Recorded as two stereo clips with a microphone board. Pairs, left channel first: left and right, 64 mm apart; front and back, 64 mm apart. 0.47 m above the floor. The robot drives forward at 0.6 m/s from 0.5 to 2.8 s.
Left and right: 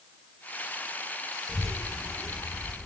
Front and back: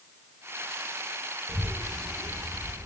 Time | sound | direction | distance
1.5 | a child speaking | 170° left | 0.9 m